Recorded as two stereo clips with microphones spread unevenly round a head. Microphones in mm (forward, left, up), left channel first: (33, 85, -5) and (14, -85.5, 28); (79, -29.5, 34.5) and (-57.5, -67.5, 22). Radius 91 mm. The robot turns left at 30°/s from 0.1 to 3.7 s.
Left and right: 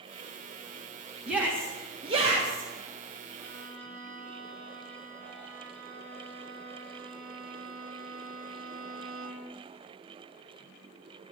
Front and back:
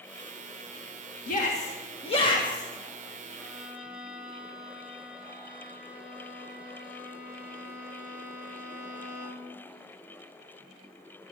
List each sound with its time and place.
1.3 s a shout: 10° right, 1.9 m; by 2.7 s 50° right, 1.9 m
3.4 s a violin: 70° right, 4.5 m; by 9.6 s 80° right, 4.5 m